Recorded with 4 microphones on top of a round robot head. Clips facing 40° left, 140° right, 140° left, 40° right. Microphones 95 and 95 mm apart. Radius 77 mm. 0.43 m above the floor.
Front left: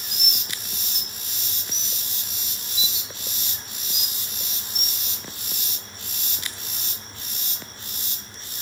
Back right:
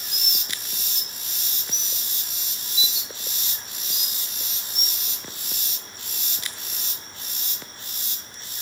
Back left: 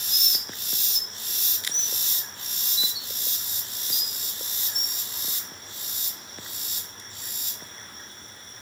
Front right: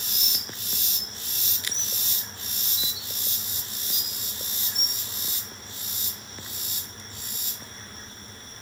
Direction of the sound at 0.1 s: 150° left.